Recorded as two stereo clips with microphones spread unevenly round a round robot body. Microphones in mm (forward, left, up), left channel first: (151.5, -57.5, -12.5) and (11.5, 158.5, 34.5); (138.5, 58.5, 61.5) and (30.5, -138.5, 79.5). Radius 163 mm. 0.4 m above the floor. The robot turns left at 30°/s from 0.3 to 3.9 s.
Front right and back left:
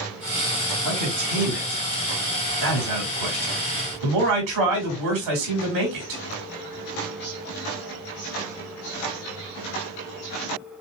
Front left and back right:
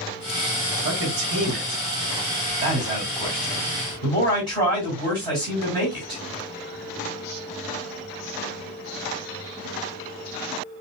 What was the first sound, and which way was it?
A man speaking, 135° right.